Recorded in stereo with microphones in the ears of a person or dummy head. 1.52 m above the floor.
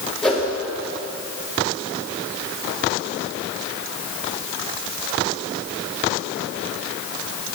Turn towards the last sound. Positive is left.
turn(degrees=5)  # may be behind; listen again after turning